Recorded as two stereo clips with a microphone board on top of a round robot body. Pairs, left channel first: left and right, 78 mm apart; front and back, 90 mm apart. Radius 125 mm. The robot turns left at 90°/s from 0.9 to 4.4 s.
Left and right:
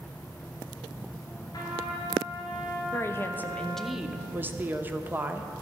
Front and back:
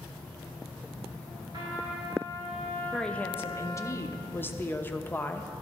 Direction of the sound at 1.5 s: 135° left.